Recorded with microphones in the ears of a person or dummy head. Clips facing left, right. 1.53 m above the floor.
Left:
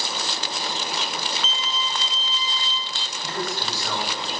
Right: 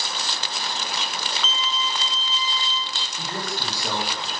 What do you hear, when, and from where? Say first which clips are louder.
1.4 s a violin: right 1 dB; 60° right (ahead or behind), 0.6 m
3.2 s a man speaking: left 2 dB; 15° right (ahead or behind), 2 m